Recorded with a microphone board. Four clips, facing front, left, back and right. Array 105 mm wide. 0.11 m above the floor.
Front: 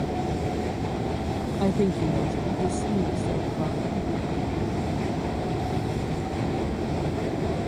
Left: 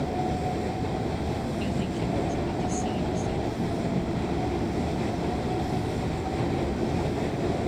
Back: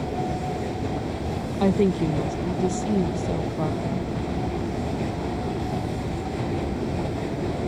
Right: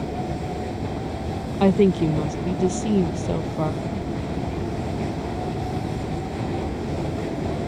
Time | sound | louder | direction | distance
1.6 | a woman speaking | right 11 dB, back 4 dB | 105° right | ?